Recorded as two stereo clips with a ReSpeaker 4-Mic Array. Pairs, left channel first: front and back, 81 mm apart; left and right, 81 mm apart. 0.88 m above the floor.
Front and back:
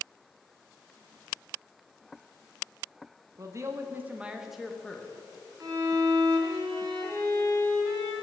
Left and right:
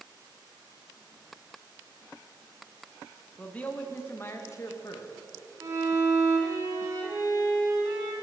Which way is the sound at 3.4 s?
160° left.